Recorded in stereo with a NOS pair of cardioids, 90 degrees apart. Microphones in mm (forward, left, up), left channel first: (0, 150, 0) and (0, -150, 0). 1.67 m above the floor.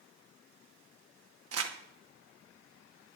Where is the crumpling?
55° right, 2.5 m.